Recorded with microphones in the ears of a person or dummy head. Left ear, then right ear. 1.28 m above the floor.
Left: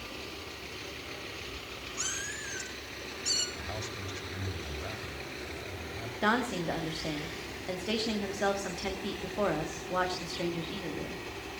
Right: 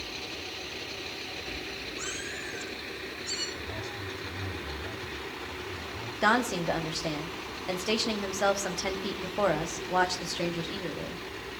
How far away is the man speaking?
About 7.5 m.